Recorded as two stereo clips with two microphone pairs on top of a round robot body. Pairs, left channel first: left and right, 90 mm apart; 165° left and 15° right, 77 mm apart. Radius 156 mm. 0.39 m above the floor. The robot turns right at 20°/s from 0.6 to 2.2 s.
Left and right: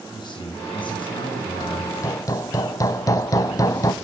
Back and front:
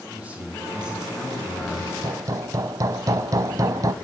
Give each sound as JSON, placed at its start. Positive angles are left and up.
{"t": 0.1, "sound": "a man speaking", "azimuth_deg": 60, "distance_m": 5.5}
{"t": 2.0, "sound": "hammering", "azimuth_deg": 30, "distance_m": 0.7}